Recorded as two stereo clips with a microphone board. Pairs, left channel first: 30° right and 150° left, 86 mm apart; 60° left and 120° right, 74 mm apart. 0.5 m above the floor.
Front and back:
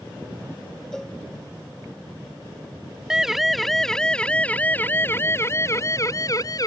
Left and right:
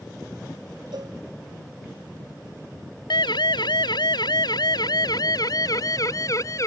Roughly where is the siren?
Ahead left.